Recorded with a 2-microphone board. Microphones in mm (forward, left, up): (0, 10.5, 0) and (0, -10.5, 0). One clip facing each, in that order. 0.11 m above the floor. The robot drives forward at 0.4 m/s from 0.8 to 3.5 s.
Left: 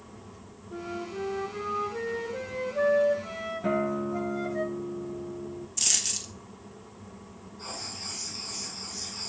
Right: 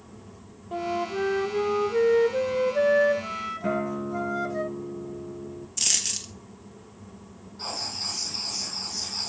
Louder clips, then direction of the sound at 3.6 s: Left 1 dB; centre (ahead or behind).